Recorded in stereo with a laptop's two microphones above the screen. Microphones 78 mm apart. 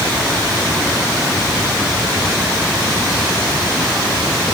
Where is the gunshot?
I don't hear a gunshot.